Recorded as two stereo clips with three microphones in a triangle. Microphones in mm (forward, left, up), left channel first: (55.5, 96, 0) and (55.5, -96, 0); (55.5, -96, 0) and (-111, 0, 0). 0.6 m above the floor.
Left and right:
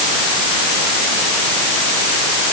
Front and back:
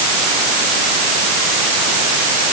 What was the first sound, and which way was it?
Only background noise.